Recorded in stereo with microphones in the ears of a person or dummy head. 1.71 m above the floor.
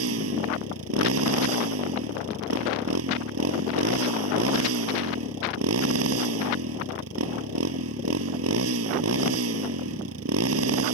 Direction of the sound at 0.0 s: 75° right (ahead or behind).